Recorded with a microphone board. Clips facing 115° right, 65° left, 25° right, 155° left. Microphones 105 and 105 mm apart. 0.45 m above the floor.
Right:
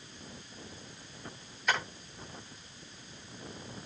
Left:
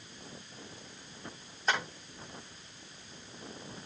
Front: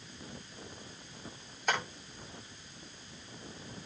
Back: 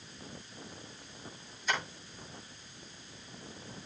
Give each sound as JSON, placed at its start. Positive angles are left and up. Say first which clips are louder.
{"t": 1.7, "sound": "tapping", "louder": "even, front 2 dB", "azimuth_deg": 10, "distance_m": 9.0}